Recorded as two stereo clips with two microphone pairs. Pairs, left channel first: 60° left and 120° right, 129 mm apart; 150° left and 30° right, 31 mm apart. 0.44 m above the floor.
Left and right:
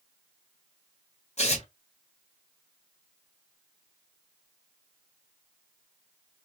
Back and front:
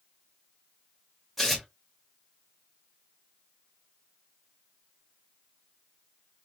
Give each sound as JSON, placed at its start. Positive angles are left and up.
{"t": 1.4, "sound": "tearing paper", "azimuth_deg": 65, "distance_m": 1.6}